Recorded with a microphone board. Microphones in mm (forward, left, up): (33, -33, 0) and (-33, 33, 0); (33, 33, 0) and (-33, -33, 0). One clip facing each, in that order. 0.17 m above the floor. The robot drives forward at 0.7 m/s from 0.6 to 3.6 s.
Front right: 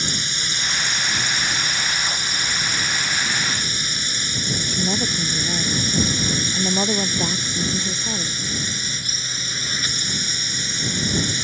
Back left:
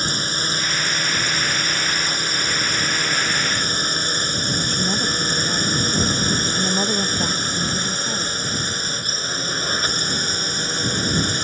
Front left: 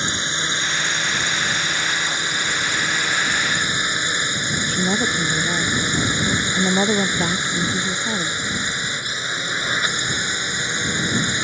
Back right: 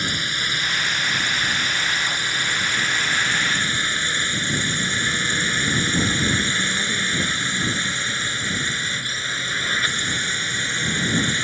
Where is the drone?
105° left; by 11.5 s 110° left.